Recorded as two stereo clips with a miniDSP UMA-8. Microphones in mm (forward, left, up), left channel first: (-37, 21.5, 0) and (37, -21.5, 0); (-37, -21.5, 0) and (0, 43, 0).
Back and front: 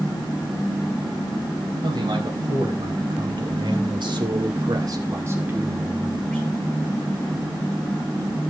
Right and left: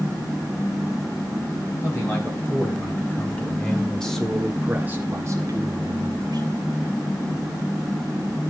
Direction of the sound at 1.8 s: 65° right.